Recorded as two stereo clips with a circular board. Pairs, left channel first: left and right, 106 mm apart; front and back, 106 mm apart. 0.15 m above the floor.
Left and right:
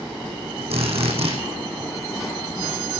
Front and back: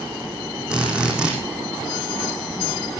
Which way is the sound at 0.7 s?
100° right.